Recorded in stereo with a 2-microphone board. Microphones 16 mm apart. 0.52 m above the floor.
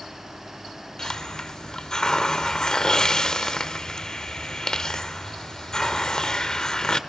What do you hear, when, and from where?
1.0 s a hiss: 45° left (ahead or behind), 1.3 m